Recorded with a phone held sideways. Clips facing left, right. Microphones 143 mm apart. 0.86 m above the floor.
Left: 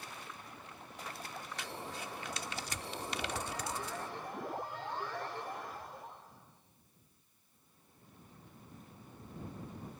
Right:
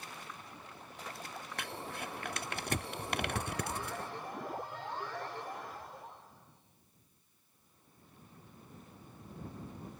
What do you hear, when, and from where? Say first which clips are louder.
1.6 s crumpling: right 3 dB; 60° right (ahead or behind)